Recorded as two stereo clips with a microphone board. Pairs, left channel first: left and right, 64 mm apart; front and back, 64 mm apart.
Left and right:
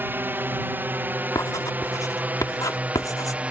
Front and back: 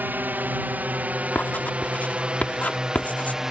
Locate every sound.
0.0 s a drone: 135° right; by 3.5 s 110° right
1.4 s writing: 65° left